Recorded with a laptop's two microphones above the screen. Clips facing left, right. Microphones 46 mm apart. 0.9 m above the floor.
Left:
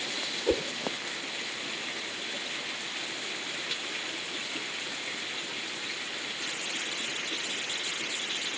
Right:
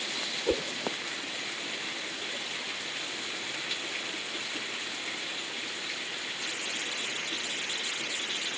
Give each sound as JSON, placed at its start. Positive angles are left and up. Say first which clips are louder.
{"t": 0.5, "sound": "a whoosh", "louder": "left 2 dB", "side_deg": 5}